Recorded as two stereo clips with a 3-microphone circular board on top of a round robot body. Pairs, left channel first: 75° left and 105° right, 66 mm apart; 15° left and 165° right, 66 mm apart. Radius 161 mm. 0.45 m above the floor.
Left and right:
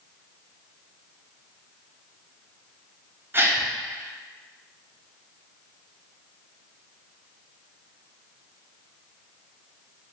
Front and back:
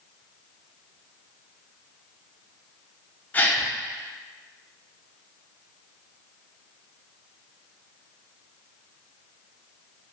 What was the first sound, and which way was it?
A gasp, 50° right.